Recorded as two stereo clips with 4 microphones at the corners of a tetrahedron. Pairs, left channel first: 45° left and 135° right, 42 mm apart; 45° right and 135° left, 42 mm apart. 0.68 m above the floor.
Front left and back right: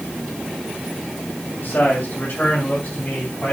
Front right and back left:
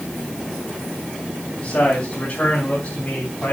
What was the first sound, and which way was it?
A man speaking, 5° right.